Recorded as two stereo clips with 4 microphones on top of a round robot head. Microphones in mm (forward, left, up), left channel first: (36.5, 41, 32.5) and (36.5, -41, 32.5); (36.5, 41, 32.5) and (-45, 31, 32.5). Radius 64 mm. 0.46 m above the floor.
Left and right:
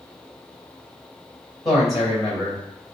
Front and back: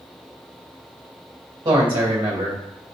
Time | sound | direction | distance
1.6 | a man speaking | straight behind | 2.5 m